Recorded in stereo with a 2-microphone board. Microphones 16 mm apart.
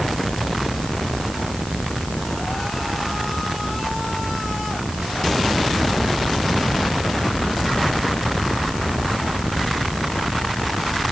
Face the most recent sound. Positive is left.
No sound to turn to.